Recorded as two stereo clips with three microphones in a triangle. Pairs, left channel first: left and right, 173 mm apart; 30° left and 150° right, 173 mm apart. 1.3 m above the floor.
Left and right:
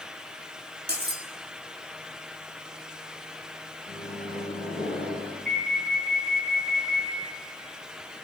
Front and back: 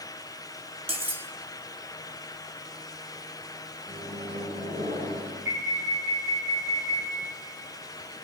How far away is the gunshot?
I don't hear a gunshot.